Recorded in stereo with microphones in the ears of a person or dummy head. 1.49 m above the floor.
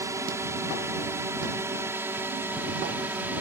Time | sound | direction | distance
0.0 | a drone | 15° right (ahead or behind) | ?